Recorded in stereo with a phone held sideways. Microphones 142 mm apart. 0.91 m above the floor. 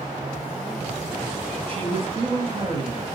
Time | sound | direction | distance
1.7 | a man speaking | 40° right (ahead or behind) | 1.1 m